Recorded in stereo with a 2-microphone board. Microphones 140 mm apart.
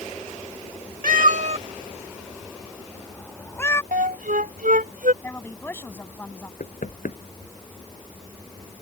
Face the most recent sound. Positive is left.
turn(degrees=70)  # may be behind; listen again after turning